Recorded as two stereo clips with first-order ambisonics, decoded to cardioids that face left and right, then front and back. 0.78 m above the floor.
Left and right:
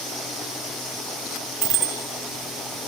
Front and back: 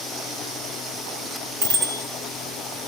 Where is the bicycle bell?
165° right, 3.5 m.